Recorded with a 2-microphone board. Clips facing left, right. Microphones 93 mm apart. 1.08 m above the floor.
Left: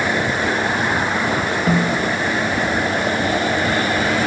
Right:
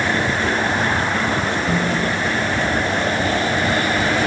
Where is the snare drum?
65° left (ahead or behind), 3 m.